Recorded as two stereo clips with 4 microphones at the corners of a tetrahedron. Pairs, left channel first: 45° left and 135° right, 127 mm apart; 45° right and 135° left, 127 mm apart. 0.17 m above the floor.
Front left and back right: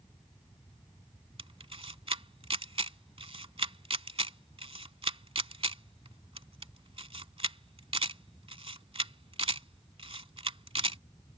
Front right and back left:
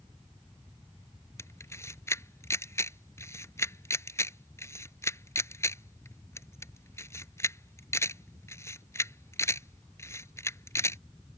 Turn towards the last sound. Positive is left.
turn(degrees=-105)